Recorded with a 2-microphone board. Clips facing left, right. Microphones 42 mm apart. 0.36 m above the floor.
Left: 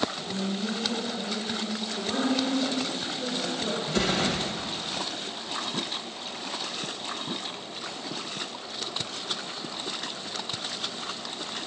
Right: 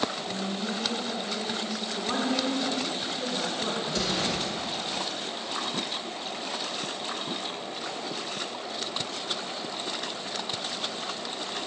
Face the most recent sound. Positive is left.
turn(degrees=40)  # may be behind; listen again after turning